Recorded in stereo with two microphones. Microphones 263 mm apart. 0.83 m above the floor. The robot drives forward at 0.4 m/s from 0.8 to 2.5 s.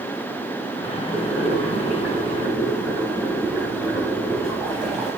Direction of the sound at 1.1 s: 5° right (ahead or behind).